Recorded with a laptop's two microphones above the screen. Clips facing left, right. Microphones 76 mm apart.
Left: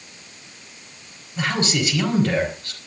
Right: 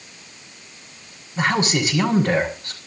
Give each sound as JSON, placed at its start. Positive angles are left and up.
{"t": 1.4, "sound": "a man speaking", "side_deg": -20, "distance_m": 4.5}